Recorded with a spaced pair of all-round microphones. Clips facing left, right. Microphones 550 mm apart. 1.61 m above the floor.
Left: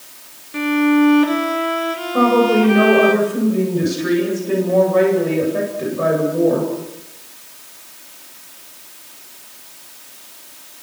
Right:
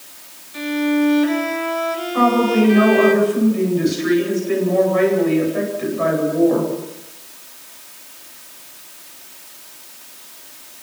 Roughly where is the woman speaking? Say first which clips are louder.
Left 2 dB; left.